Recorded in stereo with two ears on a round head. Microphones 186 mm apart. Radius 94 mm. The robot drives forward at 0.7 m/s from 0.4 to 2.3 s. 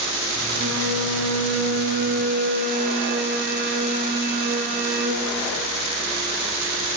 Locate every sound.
0.5 s a violin: 60° right (ahead or behind), 1.0 m; by 5.3 s 50° right (ahead or behind), 1.1 m